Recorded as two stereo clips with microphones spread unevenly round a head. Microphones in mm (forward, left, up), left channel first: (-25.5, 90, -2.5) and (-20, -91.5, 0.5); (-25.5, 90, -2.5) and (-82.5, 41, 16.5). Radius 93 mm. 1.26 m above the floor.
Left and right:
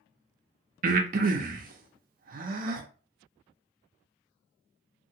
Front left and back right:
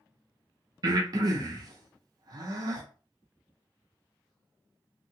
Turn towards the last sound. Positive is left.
turn(degrees=-125)